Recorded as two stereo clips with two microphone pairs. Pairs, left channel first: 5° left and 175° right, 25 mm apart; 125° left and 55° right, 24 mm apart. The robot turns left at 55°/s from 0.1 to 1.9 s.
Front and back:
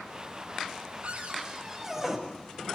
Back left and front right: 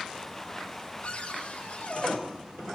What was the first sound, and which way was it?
A cupboard door, 155° left.